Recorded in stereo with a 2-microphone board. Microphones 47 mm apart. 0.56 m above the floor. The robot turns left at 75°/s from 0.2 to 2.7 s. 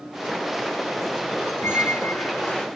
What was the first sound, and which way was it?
A squeak, 100° left.